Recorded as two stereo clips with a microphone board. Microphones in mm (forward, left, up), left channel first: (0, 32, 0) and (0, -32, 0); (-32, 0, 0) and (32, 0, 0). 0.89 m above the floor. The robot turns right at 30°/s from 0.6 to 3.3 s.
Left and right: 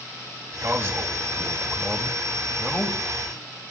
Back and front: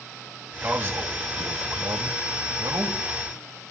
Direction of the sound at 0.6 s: 55° right.